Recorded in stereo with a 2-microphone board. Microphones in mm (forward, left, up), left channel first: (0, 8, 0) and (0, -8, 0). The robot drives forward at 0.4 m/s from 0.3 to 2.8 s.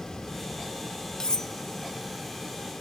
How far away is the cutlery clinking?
About 0.5 m.